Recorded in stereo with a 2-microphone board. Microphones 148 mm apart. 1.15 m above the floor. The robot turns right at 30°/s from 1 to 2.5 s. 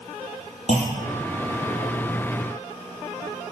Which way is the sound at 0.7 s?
60° left (ahead or behind).